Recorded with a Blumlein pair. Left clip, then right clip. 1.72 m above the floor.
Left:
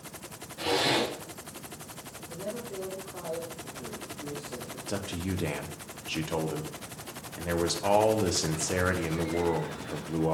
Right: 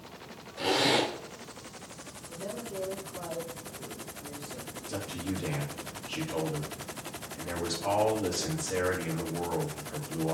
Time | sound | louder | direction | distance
0.6 | a zipper | right 1 dB | 15° right | 5 m
2.3 | a man speaking | left 1 dB | 20° left | 3.5 m
4.9 | a man speaking | left 2 dB | 35° left | 1.9 m